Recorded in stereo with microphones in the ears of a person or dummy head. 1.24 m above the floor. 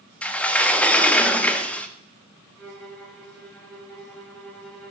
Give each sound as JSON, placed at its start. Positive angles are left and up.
{"t": 0.2, "sound": "a sliding door", "side_deg": 5, "distance_m": 0.6}
{"t": 2.6, "sound": "a violin", "side_deg": 10, "distance_m": 4.5}